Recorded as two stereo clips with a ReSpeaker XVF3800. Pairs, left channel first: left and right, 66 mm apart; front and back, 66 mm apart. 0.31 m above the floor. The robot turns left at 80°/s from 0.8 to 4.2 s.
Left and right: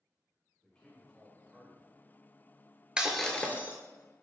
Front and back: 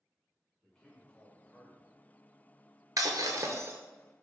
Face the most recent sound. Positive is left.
turn(degrees=95)